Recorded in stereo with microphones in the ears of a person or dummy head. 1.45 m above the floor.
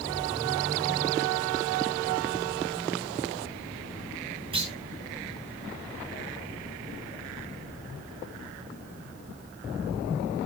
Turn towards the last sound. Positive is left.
turn(degrees=-30)  # may be behind; listen again after turning